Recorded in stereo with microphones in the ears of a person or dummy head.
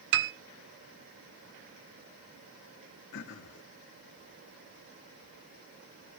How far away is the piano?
About 0.9 m.